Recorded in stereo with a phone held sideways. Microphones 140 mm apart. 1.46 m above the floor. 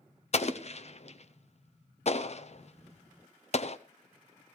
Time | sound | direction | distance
0.3 | an explosion | 50° left (ahead or behind) | 0.6 m